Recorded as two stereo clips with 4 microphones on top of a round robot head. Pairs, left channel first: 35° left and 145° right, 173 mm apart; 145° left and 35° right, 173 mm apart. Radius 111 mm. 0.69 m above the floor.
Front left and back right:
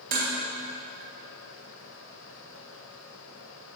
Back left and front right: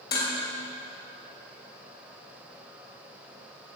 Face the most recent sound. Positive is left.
turn(degrees=175)